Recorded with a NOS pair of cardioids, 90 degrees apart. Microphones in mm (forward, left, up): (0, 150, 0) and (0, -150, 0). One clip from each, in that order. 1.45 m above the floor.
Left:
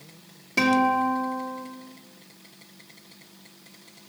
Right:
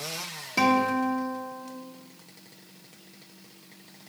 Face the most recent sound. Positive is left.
turn(degrees=10)